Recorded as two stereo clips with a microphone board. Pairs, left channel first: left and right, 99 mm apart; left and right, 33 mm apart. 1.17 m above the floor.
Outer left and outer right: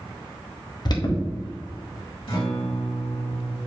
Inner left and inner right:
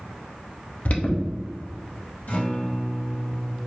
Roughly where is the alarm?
Left.